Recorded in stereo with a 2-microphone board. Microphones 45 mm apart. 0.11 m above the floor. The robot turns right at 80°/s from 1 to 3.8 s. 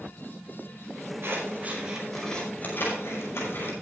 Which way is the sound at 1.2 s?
70° right (ahead or behind).